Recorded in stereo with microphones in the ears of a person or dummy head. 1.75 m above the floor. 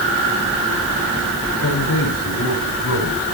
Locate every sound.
1.6 s a man speaking: 80° left, 10 m